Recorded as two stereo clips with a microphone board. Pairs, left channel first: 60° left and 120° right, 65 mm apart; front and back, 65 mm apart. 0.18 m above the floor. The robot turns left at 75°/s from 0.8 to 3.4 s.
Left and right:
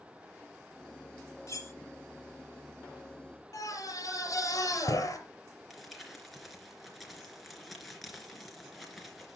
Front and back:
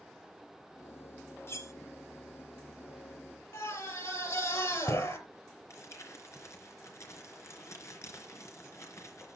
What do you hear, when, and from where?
1.5 s cutlery clinking: 40° left, 1.0 m; by 1.7 s 20° left, 1.0 m
3.5 s a scream: 30° left, 4 m
5.7 s crumpling: 30° right, 3 m